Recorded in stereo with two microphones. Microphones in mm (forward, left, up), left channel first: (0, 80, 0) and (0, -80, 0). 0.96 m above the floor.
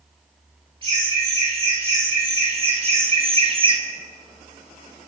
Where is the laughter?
35° right (ahead or behind), 2 m; by 3.8 s 30° right (ahead or behind), 0.7 m.